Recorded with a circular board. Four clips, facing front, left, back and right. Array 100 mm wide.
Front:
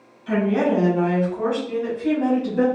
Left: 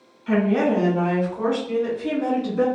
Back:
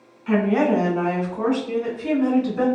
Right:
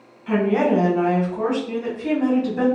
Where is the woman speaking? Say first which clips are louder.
Right 1 dB, back 1 dB; 170° right, 1.6 m; by 2.6 s 85° right, 1.7 m.